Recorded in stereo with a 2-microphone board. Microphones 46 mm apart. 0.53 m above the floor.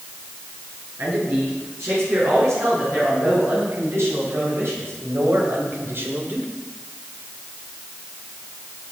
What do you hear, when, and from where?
1.0 s a man speaking: 65° right (ahead or behind), 8.5 m; by 6.5 s 45° right (ahead or behind), 1.8 m